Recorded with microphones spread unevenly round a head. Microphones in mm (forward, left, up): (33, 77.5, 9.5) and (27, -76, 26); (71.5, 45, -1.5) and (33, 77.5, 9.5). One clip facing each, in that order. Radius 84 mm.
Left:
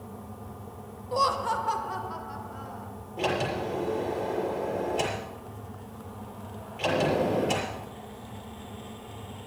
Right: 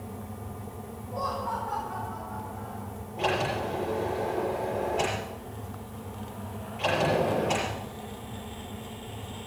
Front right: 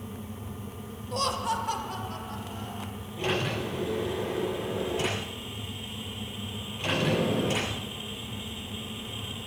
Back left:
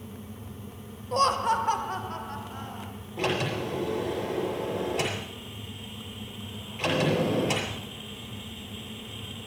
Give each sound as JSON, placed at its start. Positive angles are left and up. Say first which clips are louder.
{"t": 1.1, "sound": "laughter", "louder": "left 5 dB, back left 5 dB", "azimuth_deg": 95, "distance_m": 0.9}
{"t": 3.2, "sound": "a sliding door", "louder": "even, back left 1 dB", "azimuth_deg": 150, "distance_m": 6.0}